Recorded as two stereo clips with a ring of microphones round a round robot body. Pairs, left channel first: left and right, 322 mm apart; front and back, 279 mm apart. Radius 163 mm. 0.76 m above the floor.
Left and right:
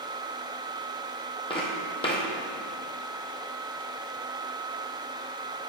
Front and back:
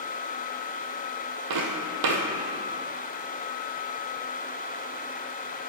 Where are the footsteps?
165° left, 1.6 m.